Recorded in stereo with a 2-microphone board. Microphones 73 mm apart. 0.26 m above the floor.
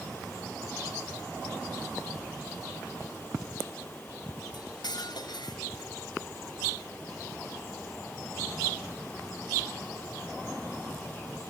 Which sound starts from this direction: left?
Cutlery clinking, at 4.5 s.